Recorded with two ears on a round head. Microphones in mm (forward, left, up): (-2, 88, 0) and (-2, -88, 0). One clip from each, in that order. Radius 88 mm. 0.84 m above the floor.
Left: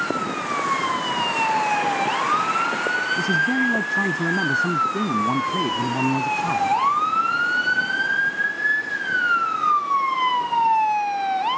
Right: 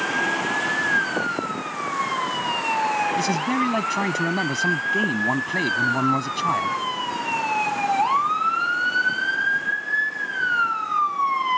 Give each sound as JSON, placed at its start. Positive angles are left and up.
{"t": 3.2, "sound": "a man speaking", "side_deg": -80}